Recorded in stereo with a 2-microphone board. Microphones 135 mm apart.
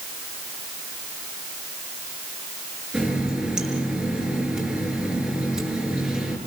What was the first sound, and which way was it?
A running tap, 5° right (ahead or behind).